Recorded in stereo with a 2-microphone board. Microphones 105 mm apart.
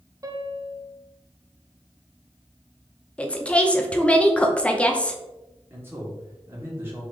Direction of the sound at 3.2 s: 10° left (ahead or behind).